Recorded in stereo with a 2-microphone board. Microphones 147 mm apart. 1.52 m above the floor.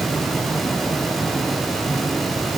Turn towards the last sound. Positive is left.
No sound to turn to.